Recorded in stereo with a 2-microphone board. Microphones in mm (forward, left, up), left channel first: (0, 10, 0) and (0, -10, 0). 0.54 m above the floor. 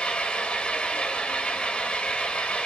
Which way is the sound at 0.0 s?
75° left (ahead or behind).